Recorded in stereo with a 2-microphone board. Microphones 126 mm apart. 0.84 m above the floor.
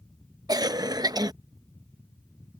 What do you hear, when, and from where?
0.5 s a cough: 30° right (ahead or behind)